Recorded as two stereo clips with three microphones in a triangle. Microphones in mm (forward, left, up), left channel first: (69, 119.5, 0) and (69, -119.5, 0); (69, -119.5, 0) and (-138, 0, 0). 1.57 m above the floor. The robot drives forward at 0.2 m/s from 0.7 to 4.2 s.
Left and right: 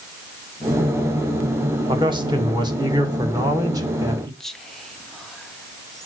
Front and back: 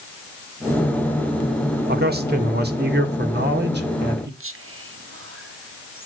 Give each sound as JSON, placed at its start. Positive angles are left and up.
{"t": 1.9, "sound": "a man speaking", "azimuth_deg": -160, "distance_m": 1.3}
{"t": 4.4, "sound": "whispering", "azimuth_deg": 180, "distance_m": 0.8}